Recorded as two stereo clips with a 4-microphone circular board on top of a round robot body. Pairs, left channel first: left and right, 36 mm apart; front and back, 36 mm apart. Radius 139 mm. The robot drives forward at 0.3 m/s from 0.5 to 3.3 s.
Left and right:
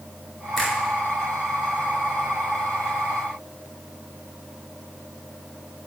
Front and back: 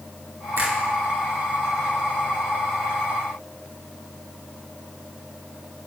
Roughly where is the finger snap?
Behind.